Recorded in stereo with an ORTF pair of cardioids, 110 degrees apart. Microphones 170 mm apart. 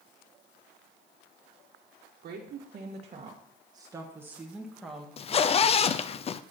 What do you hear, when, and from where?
2.2 s a woman speaking: 55° right, 1.8 m; by 5.1 s straight ahead, 2 m
5.2 s a zipper: 35° left, 0.6 m